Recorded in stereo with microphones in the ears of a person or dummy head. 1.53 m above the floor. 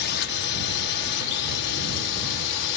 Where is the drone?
55° left (ahead or behind); by 2.8 s 60° left (ahead or behind).